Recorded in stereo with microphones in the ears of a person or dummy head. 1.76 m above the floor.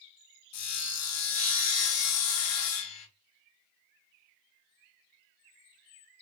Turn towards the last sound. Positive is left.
turn(degrees=85)